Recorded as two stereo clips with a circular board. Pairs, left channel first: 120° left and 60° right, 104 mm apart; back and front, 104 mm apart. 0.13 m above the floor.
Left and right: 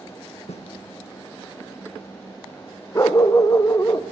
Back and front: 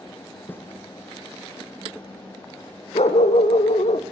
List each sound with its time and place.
0.5 s a snare drum: 110° left, 4 m
3.0 s a dog barking: straight behind, 2.5 m